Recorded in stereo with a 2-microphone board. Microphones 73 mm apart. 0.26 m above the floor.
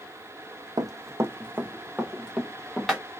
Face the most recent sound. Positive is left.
turn(degrees=0)  # may be behind; listen again after turning